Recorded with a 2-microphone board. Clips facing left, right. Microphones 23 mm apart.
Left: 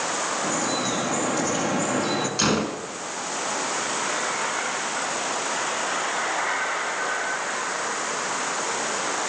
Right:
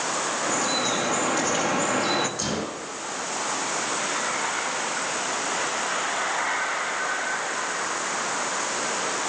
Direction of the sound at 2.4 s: 40° left (ahead or behind).